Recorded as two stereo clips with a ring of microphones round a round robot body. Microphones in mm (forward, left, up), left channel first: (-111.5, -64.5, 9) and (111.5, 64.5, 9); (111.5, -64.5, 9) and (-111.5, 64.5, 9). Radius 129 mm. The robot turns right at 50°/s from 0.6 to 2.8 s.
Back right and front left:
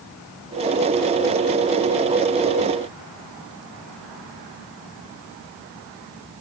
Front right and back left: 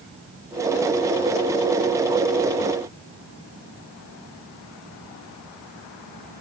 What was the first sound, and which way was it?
Only background noise.